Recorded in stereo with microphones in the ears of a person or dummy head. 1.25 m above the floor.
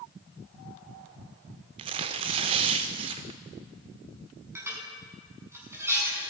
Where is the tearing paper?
25° right (ahead or behind), 1.3 m.